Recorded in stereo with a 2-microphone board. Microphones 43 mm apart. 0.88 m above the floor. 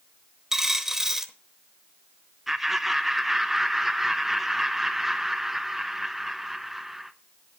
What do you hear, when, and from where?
0.5 s a dropped coin: 10° right (ahead or behind), 1.1 m
2.5 s laughter: 5° right (ahead or behind), 0.9 m